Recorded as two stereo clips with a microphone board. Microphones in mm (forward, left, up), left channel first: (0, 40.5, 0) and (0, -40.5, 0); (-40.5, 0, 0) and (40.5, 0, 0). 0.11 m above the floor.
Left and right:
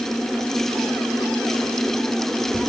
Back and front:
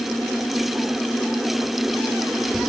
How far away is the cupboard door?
No cupboard door in this recording.